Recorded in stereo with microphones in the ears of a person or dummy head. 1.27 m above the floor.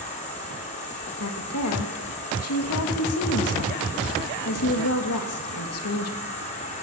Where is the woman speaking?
80° left, 1.8 m.